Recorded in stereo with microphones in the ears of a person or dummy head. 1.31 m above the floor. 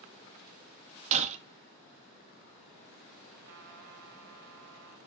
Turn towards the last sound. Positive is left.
turn(degrees=-65)  # may be behind; listen again after turning